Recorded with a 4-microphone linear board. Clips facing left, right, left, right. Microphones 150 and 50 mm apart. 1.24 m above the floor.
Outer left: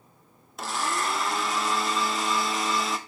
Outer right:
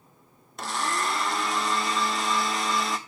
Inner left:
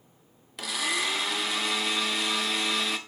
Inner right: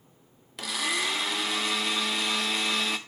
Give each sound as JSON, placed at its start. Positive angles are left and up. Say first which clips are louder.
{"t": 0.6, "sound": "a blender", "louder": "even, even", "side_deg": 0, "distance_m": 0.9}